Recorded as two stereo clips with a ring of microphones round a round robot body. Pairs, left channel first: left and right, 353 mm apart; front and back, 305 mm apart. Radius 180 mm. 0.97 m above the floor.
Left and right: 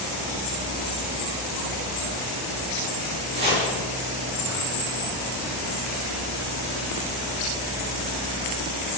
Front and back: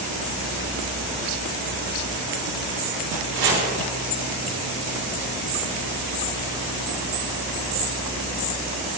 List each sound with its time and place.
3.3 s chopping: 165° right, 7.5 m